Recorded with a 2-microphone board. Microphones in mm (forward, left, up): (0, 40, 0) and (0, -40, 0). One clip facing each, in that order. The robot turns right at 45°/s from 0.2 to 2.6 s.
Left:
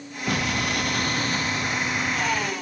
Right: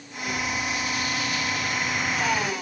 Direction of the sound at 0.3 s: 90° left.